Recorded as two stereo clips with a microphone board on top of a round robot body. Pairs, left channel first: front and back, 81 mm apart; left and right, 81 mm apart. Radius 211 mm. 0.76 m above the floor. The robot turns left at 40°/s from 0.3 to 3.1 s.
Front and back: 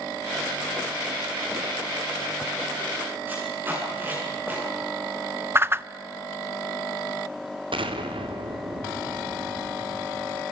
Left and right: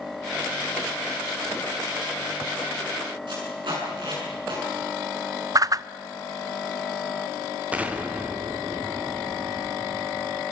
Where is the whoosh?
125° right, 0.6 m.